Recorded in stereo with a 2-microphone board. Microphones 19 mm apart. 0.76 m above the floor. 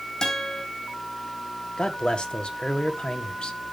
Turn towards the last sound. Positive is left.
turn(degrees=55)  # may be behind; listen again after turning